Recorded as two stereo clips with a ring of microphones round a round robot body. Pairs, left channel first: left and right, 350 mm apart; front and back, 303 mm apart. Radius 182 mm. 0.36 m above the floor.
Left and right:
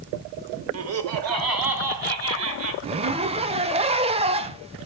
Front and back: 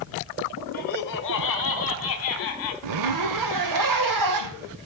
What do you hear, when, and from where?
0.7 s laughter: 55° right, 1.3 m; by 2.7 s 40° right, 2.5 m
2.8 s a zipper: 165° right, 0.7 m